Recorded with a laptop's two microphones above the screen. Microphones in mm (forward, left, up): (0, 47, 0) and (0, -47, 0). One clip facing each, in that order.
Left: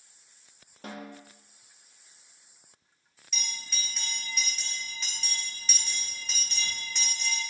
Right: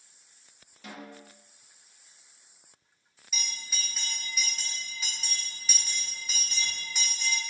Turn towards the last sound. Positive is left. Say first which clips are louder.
# right 1 dB
turn(degrees=-5)  # may be behind; listen again after turning